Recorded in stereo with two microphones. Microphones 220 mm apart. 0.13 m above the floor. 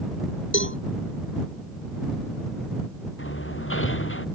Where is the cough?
No cough in this recording.